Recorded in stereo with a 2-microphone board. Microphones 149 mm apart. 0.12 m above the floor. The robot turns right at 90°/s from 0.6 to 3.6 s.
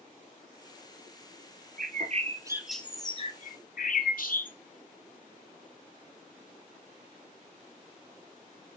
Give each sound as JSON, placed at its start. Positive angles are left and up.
{"t": 1.8, "sound": "a bird", "azimuth_deg": -85, "distance_m": 0.5}